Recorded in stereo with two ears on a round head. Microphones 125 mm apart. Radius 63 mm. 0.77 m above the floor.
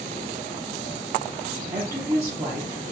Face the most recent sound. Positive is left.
turn(degrees=-20)  # may be behind; listen again after turning